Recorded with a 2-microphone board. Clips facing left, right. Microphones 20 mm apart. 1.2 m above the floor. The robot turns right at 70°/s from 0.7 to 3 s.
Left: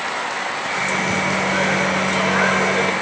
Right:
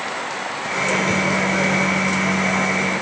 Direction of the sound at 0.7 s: 45° right.